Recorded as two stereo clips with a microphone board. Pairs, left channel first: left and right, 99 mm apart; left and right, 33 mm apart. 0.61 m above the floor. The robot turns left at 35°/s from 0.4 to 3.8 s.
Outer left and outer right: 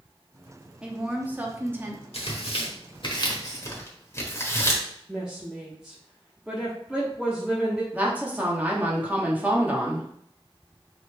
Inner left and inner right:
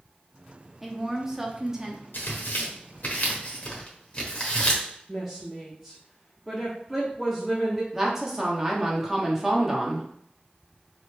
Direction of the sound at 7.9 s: 15° right (ahead or behind).